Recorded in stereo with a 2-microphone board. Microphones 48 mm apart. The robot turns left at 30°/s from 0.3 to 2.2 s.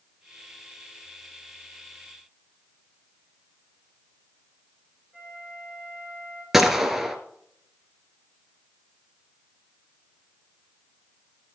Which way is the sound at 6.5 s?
5° right (ahead or behind).